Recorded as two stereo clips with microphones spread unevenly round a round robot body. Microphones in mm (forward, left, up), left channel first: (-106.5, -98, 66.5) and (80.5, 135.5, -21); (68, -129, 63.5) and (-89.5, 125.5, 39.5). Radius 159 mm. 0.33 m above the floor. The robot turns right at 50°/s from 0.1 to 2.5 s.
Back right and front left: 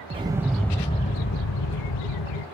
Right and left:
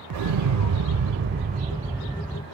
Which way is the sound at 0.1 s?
110° left.